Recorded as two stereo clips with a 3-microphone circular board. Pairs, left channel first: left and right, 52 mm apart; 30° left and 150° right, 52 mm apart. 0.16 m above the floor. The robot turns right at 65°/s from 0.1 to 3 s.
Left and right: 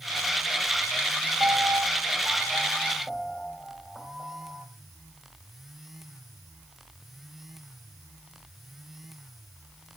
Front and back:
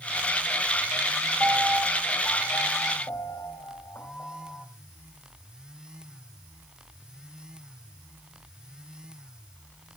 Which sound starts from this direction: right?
A piano, at 1.4 s.